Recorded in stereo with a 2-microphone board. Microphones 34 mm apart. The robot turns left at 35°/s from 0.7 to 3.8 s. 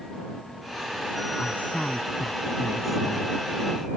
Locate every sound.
1.4 s a man speaking: 55° left; by 3.4 s 15° right